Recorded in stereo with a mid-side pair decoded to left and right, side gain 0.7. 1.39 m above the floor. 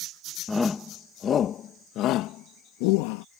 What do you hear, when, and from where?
0.5 s a shout: 15° left; by 3.2 s 80° left